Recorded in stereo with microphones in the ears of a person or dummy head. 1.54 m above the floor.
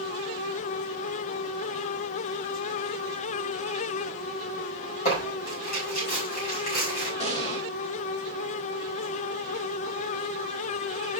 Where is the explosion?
30° left (ahead or behind), 2.5 m.